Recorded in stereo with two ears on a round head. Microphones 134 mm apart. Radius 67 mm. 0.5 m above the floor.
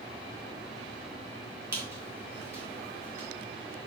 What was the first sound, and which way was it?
A squeak, 20° right (ahead or behind).